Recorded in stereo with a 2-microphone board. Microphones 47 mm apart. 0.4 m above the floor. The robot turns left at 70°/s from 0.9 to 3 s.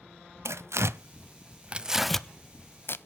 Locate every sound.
0.5 s tearing paper: 80° right, 0.6 m; by 3.0 s 60° left (ahead or behind), 0.6 m